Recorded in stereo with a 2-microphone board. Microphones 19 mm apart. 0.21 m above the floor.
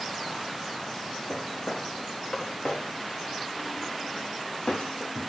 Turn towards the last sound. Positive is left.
turn(degrees=85)